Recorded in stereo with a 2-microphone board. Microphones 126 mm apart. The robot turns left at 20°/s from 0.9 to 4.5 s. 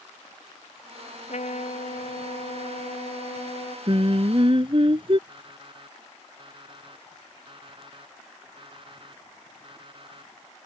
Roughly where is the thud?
No thud in this recording.